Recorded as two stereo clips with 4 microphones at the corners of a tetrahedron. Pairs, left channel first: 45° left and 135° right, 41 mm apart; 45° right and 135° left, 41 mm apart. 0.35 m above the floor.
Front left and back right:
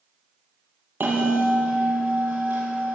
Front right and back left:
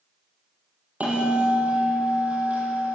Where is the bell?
170° right, 9.5 m.